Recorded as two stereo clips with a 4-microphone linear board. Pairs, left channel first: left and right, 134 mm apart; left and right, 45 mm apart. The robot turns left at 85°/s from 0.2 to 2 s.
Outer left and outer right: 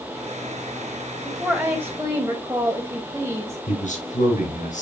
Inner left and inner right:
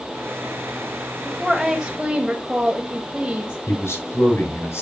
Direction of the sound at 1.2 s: 5° left (ahead or behind).